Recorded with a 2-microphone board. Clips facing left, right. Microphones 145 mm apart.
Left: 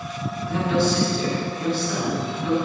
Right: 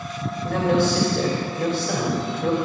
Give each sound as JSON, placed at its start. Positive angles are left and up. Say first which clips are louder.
{"t": 0.4, "sound": "a man speaking", "louder": "right 2 dB", "side_deg": -60, "distance_m": 3.0}